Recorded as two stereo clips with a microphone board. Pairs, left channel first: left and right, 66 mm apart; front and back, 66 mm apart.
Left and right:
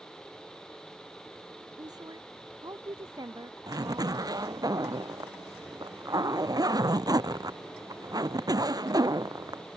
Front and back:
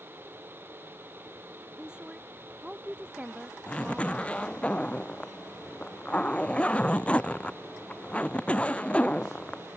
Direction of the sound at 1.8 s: 105° right.